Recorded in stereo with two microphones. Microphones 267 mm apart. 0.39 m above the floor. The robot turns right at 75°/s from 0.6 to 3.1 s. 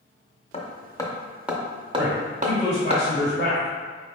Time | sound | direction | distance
0.5 | hammering | 25° left (ahead or behind) | 0.5 m
1.9 | a man speaking | 20° right | 1.3 m